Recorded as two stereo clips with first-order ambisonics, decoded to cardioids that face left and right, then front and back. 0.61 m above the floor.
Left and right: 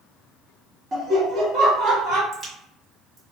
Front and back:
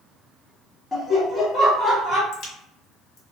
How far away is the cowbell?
No cowbell in this recording.